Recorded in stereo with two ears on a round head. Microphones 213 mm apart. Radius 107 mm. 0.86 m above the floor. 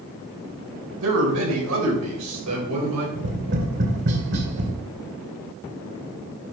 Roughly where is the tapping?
Right.